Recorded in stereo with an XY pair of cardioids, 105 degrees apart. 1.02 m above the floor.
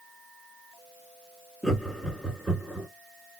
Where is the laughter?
Straight ahead, 2.5 m.